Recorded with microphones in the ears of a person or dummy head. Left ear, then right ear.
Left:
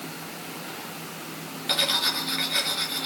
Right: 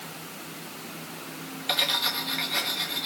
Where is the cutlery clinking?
5° right (ahead or behind), 0.7 m.